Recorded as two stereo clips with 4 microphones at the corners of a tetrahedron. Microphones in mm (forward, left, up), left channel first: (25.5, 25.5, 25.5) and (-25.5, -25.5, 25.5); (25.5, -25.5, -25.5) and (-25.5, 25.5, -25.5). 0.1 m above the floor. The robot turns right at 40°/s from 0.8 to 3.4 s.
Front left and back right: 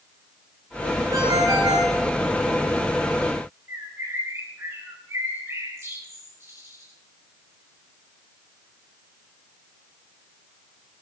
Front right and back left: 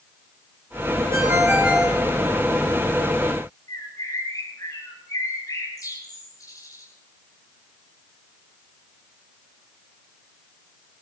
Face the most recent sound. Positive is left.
turn(degrees=-85)